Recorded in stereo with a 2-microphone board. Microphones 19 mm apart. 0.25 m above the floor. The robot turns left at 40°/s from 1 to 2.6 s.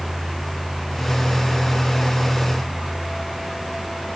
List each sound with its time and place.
Only background noise.